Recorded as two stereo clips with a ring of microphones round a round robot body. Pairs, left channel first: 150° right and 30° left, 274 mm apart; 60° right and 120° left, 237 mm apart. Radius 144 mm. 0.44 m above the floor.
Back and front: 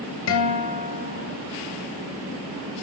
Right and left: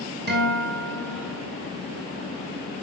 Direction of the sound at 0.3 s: 175° left.